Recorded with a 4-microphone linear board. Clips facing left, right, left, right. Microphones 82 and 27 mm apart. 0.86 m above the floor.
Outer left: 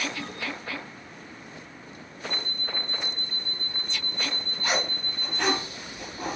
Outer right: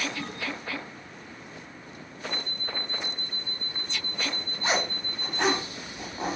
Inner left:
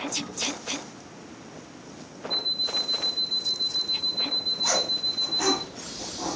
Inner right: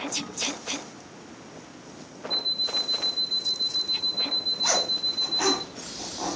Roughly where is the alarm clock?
Centre.